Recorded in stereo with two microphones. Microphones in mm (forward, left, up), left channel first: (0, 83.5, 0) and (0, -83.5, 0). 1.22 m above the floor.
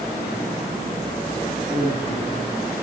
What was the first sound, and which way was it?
A man speaking, 35° left (ahead or behind).